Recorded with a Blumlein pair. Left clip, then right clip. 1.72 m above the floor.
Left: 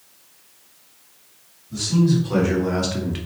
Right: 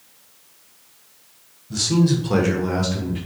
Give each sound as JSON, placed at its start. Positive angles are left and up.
{"t": 1.7, "sound": "a man speaking", "azimuth_deg": -40, "distance_m": 1.5}